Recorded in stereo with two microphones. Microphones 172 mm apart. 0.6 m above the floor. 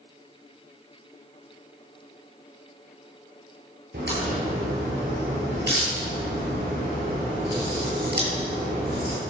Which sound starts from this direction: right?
A crack, at 3.9 s.